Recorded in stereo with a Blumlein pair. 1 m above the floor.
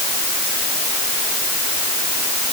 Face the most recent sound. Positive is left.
No sound to turn to.